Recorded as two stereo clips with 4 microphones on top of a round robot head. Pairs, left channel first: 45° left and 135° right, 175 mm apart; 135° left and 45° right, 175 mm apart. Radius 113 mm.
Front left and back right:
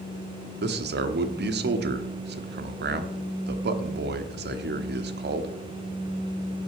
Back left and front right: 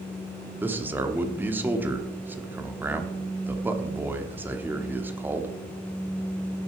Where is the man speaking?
120° right, 1.3 m.